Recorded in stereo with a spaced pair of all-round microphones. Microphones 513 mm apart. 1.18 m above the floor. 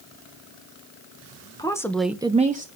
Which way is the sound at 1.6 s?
5° left (ahead or behind).